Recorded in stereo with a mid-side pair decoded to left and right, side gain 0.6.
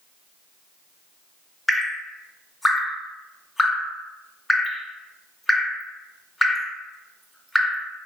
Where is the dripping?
15° left, 0.6 m.